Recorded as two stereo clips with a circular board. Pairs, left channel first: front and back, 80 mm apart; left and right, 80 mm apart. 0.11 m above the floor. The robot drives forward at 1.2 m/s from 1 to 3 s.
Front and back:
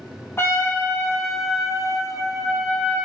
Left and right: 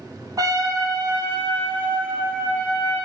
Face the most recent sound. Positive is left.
turn(degrees=-155)